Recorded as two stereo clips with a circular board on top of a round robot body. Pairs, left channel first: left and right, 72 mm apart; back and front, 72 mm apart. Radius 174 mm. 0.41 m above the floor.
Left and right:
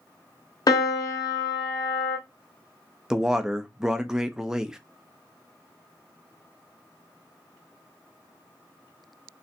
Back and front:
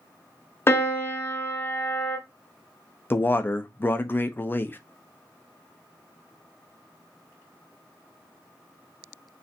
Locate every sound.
0.7 s a piano: 120° left, 0.8 m
3.1 s a man speaking: 165° right, 0.8 m